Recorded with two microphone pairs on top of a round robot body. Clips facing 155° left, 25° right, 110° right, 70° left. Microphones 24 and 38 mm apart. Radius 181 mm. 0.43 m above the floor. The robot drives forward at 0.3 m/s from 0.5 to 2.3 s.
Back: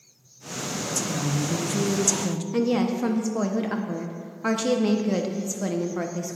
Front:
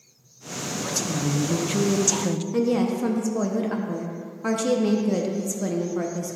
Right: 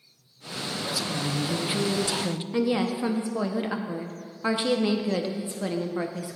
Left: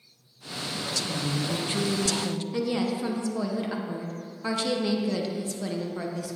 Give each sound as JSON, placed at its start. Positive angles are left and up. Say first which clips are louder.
{"t": 0.8, "sound": "a woman speaking", "louder": "front 2 dB, right 1 dB", "azimuth_deg": -30, "distance_m": 1.0}
{"t": 2.5, "sound": "a woman speaking", "louder": "even, right 4 dB", "azimuth_deg": -155, "distance_m": 1.1}